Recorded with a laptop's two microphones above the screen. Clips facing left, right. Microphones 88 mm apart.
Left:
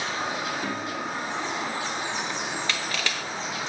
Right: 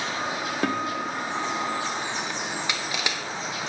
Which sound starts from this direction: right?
A guitar, at 0.6 s.